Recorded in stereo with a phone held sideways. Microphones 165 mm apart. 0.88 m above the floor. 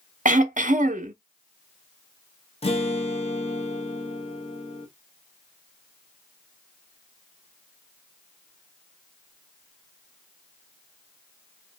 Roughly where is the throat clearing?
Right.